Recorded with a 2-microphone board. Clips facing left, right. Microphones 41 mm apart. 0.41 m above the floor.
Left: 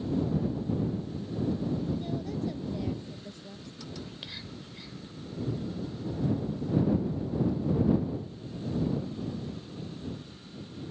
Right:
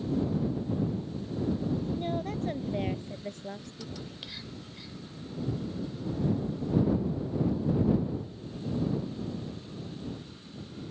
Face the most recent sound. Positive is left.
turn(degrees=5)  # may be behind; listen again after turning